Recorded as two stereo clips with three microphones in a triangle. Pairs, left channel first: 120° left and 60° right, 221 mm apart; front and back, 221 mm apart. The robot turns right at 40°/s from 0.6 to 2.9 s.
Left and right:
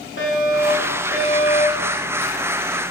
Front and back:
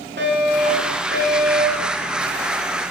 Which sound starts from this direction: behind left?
A fire alarm, at 0.2 s.